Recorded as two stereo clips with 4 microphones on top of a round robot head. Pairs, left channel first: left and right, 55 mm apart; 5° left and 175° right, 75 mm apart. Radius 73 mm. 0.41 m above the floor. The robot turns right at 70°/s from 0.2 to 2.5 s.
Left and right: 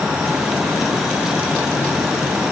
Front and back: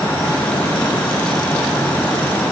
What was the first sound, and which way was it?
Only background noise.